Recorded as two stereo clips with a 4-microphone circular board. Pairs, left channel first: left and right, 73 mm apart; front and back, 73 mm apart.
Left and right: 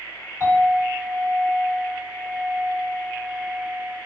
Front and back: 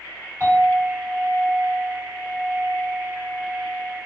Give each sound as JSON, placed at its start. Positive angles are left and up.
{"t": 0.4, "sound": "a clink", "azimuth_deg": 130, "distance_m": 1.7}